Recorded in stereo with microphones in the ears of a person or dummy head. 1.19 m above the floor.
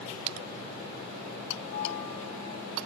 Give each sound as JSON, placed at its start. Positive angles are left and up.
{"t": 1.6, "sound": "a bell", "side_deg": 50, "distance_m": 2.5}